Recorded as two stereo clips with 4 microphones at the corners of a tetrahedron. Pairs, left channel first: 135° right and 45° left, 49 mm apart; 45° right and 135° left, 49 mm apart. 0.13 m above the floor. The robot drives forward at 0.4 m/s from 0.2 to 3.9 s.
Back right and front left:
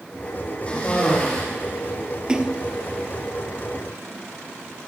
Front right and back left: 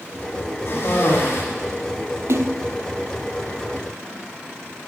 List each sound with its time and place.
0.7 s a cough: 70° right, 6.5 m
2.3 s a splash: 115° left, 0.7 m; by 2.7 s 125° left, 0.8 m